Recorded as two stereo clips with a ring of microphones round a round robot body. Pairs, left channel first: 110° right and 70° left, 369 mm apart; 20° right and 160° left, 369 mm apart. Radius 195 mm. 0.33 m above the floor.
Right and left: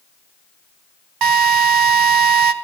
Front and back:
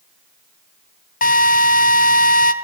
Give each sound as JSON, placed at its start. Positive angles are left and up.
{"t": 1.2, "sound": "a drill", "azimuth_deg": 45, "distance_m": 2.5}